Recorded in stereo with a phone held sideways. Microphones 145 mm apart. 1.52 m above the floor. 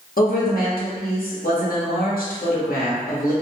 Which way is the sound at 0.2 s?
85° left.